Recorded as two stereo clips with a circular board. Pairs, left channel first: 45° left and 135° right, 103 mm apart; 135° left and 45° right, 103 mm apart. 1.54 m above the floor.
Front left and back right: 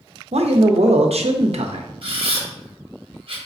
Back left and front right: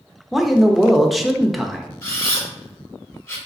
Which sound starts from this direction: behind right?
A man speaking, at 0.3 s.